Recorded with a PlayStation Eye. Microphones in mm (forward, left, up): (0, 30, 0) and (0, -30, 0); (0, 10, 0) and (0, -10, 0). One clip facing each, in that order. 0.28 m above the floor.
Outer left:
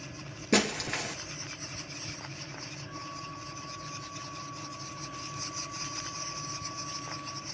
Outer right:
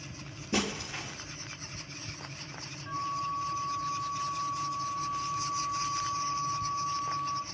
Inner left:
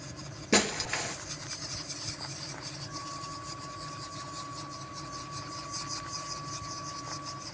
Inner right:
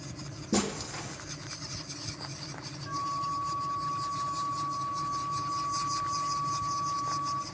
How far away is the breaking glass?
About 1.5 m.